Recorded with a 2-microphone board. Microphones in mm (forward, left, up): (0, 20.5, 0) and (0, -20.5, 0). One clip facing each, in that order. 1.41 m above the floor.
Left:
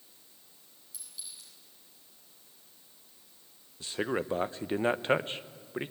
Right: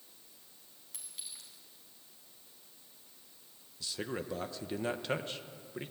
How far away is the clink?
About 7.5 m.